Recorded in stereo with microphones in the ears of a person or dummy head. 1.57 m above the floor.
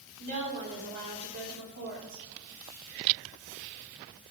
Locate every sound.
0.2 s a woman speaking: 75° right (ahead or behind), 4 m